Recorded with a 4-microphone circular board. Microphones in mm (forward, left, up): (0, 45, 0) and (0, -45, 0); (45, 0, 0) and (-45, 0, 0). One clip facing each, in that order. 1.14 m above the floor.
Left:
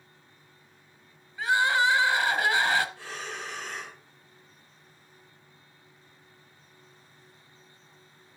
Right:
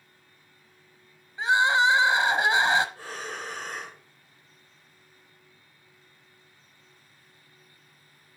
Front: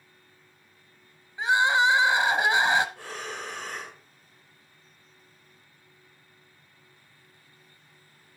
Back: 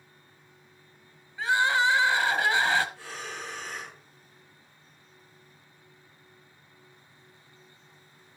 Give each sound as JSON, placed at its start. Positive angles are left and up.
{"t": 1.4, "sound": "crying", "azimuth_deg": -50, "distance_m": 1.0}
{"t": 3.0, "sound": "breathing", "azimuth_deg": -40, "distance_m": 5.0}